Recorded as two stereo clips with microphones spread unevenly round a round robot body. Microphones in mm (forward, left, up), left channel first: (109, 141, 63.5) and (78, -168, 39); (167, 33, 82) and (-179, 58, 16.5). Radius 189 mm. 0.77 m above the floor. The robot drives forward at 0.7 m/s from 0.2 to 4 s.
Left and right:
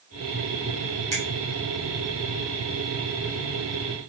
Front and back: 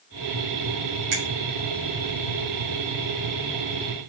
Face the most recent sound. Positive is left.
turn(degrees=-175)